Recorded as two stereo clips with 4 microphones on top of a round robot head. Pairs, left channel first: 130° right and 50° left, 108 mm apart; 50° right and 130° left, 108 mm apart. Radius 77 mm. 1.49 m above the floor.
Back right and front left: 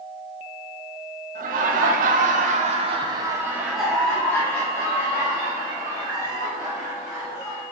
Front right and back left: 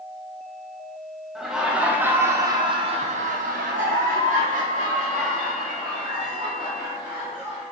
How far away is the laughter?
About 1.1 m.